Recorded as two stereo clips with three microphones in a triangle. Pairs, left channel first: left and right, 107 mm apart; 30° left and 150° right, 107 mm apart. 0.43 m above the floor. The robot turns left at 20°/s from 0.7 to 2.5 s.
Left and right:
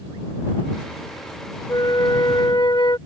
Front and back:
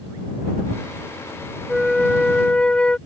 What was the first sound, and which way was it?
A flute, 120° left.